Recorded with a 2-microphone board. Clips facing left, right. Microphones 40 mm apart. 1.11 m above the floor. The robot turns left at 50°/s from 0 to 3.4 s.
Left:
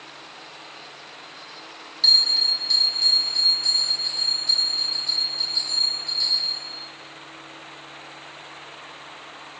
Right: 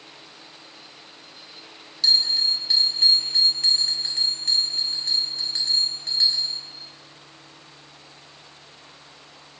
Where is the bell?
15° left, 0.7 m; by 6.7 s 55° right, 0.7 m.